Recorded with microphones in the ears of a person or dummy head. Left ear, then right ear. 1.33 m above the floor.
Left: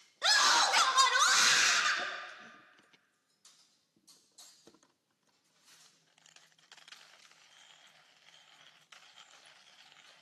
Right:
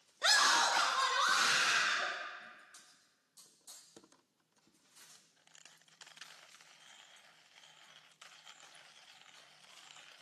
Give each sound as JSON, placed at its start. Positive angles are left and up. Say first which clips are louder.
{"t": 0.2, "sound": "a scream", "louder": "left 2 dB", "side_deg": 10, "distance_m": 0.7}